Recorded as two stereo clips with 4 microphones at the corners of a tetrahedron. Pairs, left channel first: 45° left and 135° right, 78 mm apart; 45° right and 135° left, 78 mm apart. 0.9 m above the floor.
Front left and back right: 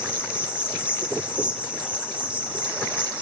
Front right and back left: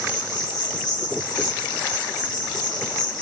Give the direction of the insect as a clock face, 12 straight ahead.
2 o'clock.